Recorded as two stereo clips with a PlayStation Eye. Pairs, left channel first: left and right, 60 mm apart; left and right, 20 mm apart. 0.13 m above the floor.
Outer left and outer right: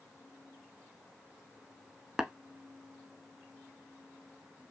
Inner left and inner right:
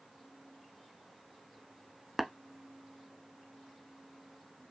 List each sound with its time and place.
2.2 s tapping: 10° right (ahead or behind), 0.5 m